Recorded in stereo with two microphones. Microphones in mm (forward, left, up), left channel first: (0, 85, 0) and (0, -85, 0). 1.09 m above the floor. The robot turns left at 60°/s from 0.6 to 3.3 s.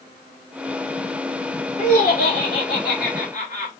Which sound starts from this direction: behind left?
Laughter, at 1.8 s.